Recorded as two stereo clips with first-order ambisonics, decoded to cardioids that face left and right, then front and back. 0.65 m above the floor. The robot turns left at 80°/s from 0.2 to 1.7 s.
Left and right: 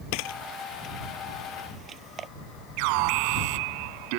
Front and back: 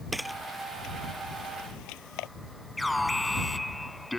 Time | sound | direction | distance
0.1 | a camera shutter | 95° left | ?
2.8 | an alarm | 85° right | ?